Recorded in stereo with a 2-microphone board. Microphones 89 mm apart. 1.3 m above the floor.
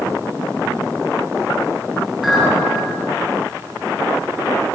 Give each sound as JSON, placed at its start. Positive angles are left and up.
{"t": 2.2, "sound": "a clink", "side_deg": -5, "distance_m": 1.0}